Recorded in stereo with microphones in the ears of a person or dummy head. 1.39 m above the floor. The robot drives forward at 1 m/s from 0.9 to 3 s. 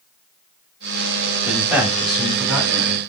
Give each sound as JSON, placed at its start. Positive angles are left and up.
{"t": 1.4, "sound": "a man speaking", "side_deg": 0, "distance_m": 4.0}